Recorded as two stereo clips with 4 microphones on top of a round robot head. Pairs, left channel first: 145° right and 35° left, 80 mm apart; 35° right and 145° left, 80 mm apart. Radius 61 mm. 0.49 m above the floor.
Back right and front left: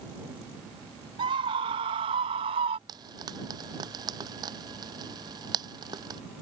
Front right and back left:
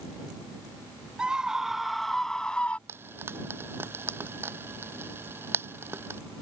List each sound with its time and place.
1.2 s a scream: 65° left; by 2.8 s 35° left
2.9 s frying: 80° left